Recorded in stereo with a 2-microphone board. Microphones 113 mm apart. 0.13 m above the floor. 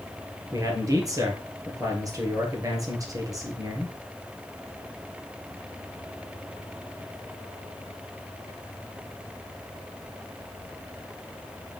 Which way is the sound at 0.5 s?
30° right (ahead or behind).